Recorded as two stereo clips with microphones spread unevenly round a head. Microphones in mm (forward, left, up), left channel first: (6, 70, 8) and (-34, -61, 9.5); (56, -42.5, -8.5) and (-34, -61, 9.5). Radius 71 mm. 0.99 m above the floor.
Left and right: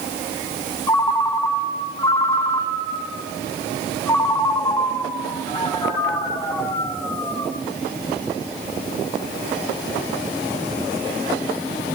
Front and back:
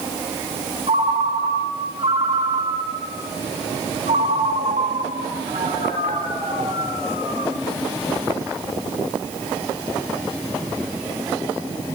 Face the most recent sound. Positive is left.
turn(degrees=145)